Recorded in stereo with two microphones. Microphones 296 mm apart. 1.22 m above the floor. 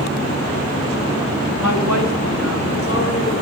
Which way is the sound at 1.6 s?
75° left (ahead or behind).